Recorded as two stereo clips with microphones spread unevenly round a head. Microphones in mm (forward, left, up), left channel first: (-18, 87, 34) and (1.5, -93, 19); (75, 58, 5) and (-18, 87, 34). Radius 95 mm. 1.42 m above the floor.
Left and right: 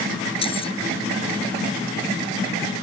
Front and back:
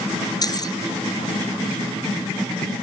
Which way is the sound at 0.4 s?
35° left.